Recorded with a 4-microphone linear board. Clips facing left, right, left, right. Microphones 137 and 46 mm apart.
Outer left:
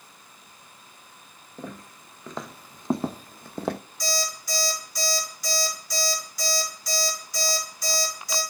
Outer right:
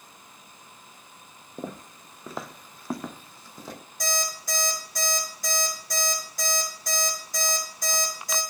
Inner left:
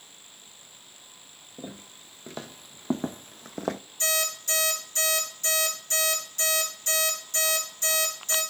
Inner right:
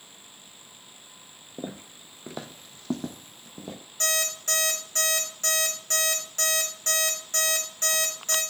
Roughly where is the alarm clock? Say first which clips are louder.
Even, inner right 1 dB; right.